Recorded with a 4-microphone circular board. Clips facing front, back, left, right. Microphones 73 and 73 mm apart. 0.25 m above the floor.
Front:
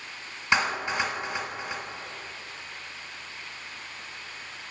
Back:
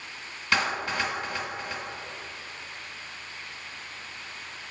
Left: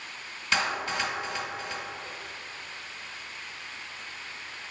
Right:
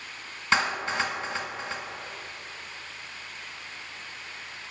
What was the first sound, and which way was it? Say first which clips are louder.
A clap: front 1 dB, right 3 dB; 50° right.